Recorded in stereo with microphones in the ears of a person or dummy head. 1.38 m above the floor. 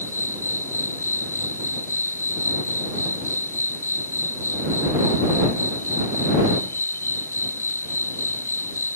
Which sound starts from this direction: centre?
An insect, at 0.0 s.